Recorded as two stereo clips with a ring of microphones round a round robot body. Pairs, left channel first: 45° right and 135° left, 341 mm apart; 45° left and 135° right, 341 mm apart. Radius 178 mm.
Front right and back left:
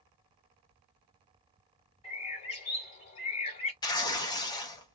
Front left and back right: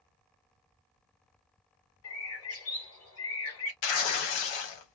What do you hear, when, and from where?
2.0 s a bird: 20° left, 1.7 m
3.8 s tearing paper: 35° left, 0.8 m